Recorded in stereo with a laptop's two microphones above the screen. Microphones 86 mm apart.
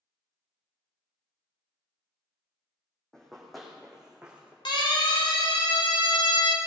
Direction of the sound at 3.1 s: 5° left (ahead or behind).